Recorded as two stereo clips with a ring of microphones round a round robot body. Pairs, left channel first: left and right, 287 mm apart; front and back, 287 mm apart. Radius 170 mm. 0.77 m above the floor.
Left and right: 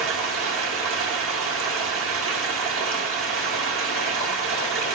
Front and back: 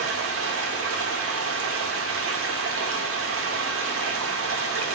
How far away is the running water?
About 1.1 m.